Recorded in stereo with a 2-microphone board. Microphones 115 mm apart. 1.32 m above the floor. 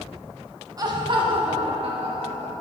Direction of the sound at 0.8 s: 30° right (ahead or behind).